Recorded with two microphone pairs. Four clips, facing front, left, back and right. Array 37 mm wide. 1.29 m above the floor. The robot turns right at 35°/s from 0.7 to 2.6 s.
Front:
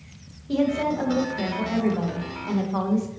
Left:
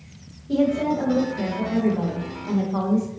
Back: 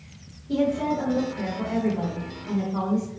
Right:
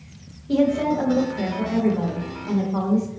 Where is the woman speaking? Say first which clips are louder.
Right 1 dB, front 1 dB; 50° right, 1.0 m; by 3.1 s 20° left, 1.0 m.